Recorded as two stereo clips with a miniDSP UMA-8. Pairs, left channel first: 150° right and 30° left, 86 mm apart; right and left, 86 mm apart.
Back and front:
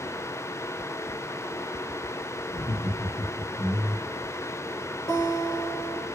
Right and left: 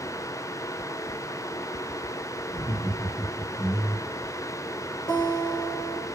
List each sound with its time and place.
2.5 s laughter: 135° right, 2 m; by 4.1 s 105° right, 2.5 m
5.1 s a guitar: 110° right, 2.5 m